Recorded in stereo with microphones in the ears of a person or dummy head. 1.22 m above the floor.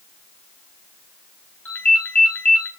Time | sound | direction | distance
1.6 | a ringtone | 15° left (ahead or behind) | 5.5 m